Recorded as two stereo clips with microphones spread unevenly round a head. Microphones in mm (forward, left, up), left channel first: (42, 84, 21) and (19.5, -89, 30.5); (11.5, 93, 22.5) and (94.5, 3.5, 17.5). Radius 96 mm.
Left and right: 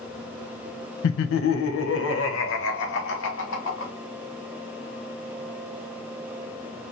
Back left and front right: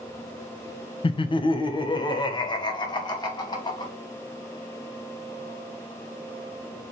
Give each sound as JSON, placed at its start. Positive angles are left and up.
{"t": 1.0, "sound": "laughter", "azimuth_deg": 85, "distance_m": 0.5}